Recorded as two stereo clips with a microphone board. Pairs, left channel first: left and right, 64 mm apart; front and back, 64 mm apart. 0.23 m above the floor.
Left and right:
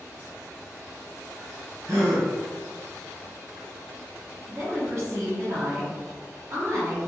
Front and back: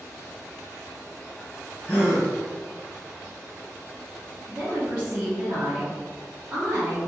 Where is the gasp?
60° right, 1.8 m.